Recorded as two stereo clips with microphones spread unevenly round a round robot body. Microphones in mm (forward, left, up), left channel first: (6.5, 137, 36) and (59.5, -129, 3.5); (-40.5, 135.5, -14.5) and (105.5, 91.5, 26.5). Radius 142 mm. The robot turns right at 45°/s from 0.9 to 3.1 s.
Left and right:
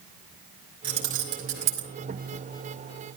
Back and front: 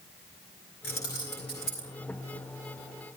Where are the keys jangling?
155° right, 2.5 m; by 1.9 s 110° right, 2.5 m.